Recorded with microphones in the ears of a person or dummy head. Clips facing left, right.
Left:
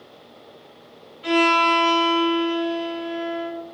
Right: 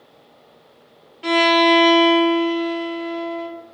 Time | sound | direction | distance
1.2 | a violin | 80° right | 0.8 m